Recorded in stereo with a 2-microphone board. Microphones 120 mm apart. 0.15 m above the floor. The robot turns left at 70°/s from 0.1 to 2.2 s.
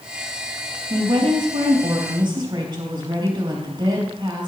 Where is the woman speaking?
45° right, 3.5 m; by 4.5 s 135° right, 3.5 m.